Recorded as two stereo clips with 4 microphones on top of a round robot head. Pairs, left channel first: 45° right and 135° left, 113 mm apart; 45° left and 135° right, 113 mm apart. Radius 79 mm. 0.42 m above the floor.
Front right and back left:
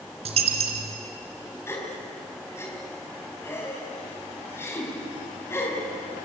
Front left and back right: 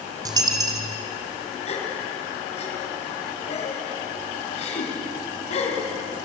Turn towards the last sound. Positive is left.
turn(degrees=20)